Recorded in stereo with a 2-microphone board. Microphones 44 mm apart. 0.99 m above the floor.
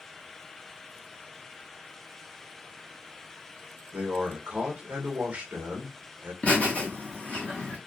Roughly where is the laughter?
Left.